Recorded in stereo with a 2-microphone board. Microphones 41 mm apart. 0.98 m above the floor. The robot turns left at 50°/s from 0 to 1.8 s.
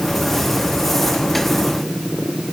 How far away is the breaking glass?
No breaking glass in this recording.